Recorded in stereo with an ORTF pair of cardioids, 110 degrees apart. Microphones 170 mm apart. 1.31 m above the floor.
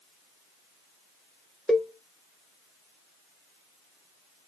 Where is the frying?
No frying in this recording.